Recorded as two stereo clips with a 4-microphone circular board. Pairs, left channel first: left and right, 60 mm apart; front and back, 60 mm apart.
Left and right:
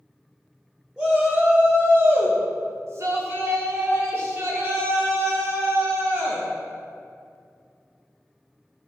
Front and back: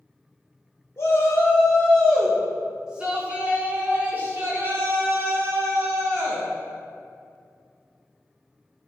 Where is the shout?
15° right, 1.2 m; by 6.5 s 140° right, 3.5 m.